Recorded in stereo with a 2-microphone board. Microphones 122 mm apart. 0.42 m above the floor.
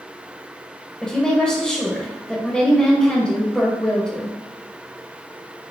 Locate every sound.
1.0 s a woman speaking: 5° left (ahead or behind), 1.4 m